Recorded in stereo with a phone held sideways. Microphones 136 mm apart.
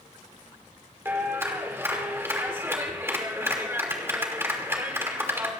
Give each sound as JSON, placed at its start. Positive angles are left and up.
{"t": 1.1, "sound": "a clap", "side_deg": -15, "distance_m": 2.5}